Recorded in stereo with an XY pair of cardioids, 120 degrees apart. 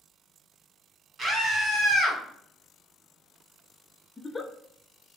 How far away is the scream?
About 1.8 m.